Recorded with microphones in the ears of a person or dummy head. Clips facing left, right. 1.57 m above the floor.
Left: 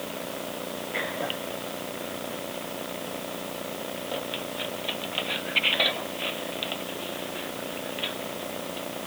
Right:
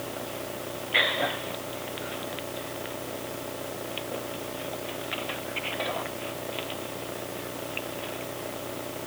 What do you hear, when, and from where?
Only background noise.